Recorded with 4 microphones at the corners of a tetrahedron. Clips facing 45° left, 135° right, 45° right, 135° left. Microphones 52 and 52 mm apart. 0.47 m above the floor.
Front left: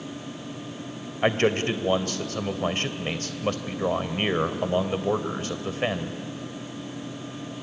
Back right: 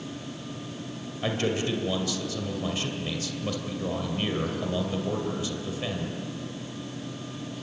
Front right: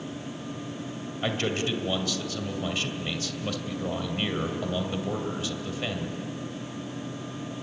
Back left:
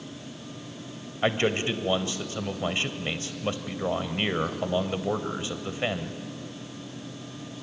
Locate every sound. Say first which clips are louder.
1.2 s a man speaking: front left 5 dB, back left 4 dB; 75° left, 1.9 m